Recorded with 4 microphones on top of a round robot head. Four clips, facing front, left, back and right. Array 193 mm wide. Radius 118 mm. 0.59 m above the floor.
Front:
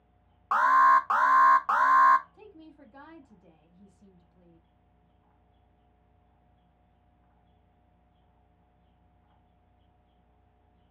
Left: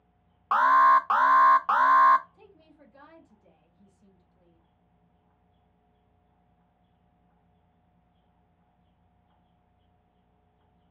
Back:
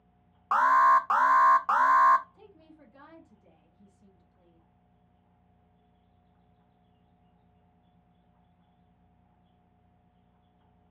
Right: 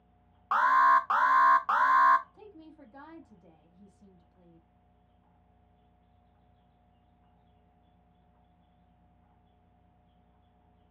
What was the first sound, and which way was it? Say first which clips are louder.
An alarm: left 4 dB, front 1 dB; 110° left.